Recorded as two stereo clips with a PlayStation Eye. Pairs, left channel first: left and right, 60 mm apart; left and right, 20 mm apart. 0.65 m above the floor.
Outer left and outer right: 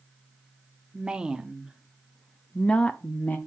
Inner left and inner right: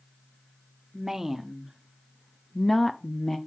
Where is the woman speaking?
15° right (ahead or behind), 0.9 m; by 3.4 s 30° left (ahead or behind), 0.7 m.